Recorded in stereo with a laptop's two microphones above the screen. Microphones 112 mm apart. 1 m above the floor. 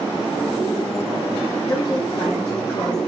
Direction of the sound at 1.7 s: 35° left (ahead or behind).